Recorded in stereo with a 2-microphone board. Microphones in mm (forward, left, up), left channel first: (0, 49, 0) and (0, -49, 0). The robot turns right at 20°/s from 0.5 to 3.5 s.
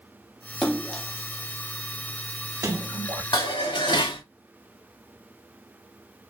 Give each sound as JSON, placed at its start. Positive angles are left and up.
{"t": 0.6, "sound": "a splash", "side_deg": 5, "distance_m": 0.8}
{"t": 3.3, "sound": "dishes clattering", "side_deg": 50, "distance_m": 1.0}